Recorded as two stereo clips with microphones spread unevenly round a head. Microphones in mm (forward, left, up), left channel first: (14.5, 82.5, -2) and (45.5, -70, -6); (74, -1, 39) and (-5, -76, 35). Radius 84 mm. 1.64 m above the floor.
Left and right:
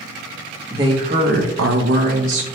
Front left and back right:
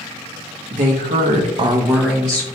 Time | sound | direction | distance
0.7 | a woman speaking | 155° right | 1.3 m